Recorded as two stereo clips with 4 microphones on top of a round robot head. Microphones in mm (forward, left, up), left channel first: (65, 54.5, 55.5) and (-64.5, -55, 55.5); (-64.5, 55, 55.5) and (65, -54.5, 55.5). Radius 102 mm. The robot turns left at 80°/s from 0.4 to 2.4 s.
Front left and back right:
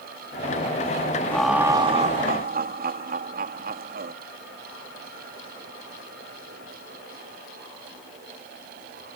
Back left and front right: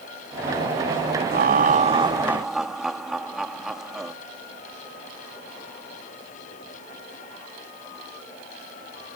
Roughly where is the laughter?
Ahead right.